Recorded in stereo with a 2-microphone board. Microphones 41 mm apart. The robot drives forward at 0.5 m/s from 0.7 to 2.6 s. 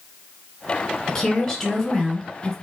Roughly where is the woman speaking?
Centre.